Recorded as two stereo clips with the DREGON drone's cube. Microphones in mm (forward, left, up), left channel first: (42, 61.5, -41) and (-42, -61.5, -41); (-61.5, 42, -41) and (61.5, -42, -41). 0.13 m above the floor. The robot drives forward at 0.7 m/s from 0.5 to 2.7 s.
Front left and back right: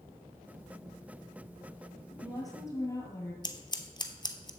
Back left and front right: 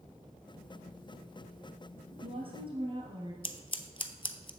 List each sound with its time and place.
2.1 s a woman speaking: straight ahead, 1.9 m
3.4 s scissors: 105° left, 0.6 m